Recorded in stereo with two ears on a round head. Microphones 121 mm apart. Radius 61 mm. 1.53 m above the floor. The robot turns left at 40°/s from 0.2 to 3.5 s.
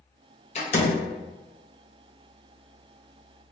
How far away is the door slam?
About 0.8 m.